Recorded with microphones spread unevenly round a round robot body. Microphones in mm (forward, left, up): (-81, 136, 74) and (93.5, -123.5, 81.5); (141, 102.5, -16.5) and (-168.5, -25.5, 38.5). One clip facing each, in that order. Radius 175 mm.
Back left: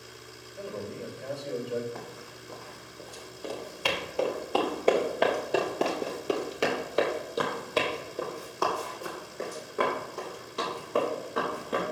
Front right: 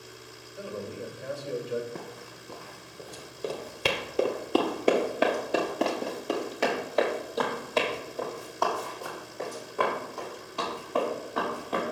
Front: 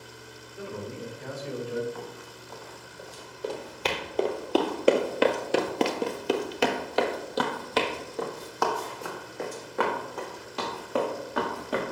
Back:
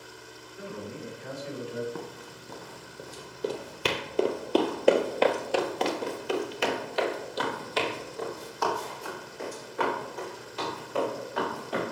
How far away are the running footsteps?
About 1.9 m.